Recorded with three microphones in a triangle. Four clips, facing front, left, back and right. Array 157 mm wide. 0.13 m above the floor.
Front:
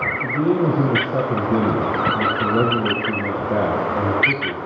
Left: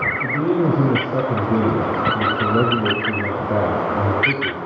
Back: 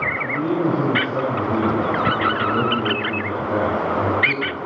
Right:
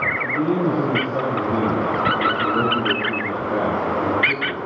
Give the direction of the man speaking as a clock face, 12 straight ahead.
9 o'clock.